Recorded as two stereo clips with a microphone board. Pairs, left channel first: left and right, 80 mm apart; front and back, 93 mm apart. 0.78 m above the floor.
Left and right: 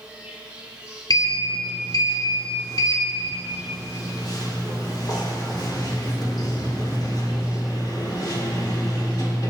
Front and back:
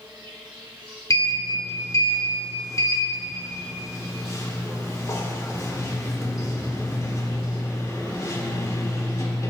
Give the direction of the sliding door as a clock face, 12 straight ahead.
10 o'clock.